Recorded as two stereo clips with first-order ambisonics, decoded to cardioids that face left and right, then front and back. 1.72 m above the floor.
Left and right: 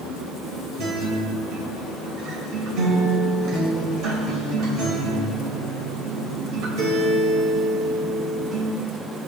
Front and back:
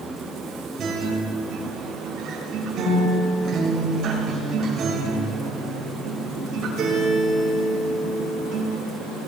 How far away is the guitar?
About 3 m.